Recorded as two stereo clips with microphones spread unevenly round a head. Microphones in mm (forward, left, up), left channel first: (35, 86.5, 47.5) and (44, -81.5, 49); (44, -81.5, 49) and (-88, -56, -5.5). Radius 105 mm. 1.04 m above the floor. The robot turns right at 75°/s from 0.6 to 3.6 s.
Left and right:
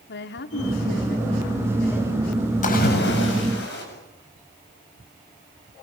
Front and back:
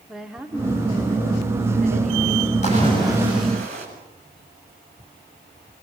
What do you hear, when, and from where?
0.1 s a woman speaking: 85° left, 2.5 m; by 2.5 s 135° right, 2.5 m
2.6 s a splash: 50° left, 8 m; by 3.9 s 120° left, 8 m